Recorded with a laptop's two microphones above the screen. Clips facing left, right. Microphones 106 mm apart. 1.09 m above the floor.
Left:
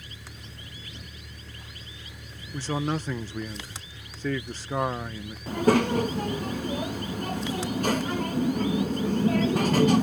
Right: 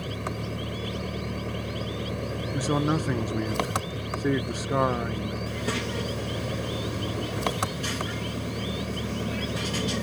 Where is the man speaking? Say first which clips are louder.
Right 3 dB; 10° right (ahead or behind).